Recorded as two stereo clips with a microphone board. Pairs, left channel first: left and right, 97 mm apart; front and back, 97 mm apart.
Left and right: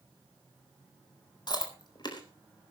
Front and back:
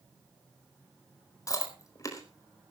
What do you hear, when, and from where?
1.5 s chewing: 55° left, 4.5 m